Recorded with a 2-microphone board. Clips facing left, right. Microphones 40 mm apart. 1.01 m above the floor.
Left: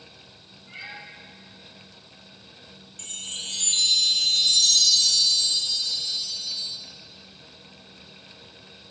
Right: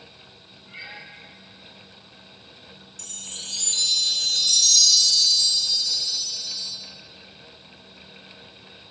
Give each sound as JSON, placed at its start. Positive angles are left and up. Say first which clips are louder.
{"t": 0.7, "sound": "a cat meowing", "louder": "even", "side_deg": 10, "distance_m": 3.0}
{"t": 3.0, "sound": "a chime", "louder": "left 4 dB", "side_deg": 35, "distance_m": 1.1}